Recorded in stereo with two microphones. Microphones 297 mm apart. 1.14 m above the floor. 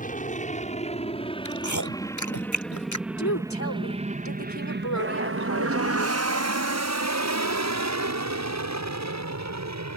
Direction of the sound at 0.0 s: 25° left (ahead or behind).